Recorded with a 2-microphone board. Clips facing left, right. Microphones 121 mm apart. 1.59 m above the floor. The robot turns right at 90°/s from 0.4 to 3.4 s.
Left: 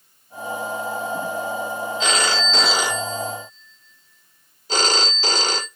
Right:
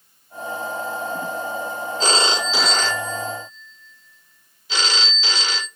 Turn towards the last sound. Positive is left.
turn(degrees=70)